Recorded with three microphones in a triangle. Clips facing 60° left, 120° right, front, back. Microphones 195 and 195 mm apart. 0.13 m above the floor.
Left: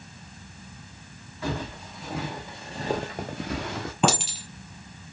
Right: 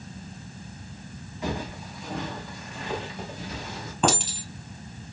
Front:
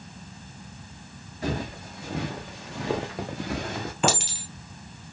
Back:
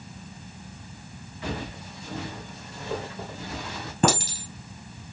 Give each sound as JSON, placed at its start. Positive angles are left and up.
{"t": 1.4, "sound": "footsteps", "azimuth_deg": -45, "distance_m": 1.1}
{"t": 4.0, "sound": "a clink", "azimuth_deg": 140, "distance_m": 1.5}